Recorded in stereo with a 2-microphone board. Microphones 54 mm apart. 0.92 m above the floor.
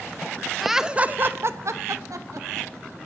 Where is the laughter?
Centre (ahead or behind), 0.6 m; by 2.7 s 80° right, 1.3 m.